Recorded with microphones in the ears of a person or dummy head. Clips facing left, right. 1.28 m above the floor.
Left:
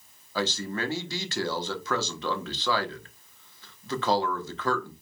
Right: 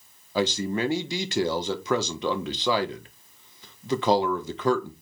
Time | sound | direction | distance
0.3 | a man speaking | 20° right (ahead or behind) | 1.3 m